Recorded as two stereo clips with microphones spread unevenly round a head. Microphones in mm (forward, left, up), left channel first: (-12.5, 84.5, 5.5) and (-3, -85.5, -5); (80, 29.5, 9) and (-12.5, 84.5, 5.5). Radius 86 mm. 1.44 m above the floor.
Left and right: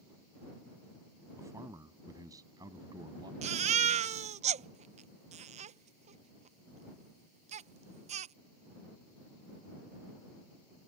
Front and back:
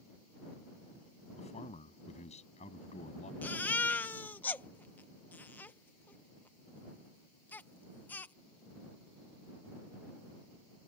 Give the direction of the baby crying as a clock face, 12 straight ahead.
3 o'clock.